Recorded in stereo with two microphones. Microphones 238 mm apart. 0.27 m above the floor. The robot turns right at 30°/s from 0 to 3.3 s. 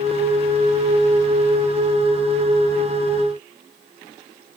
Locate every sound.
Only background noise.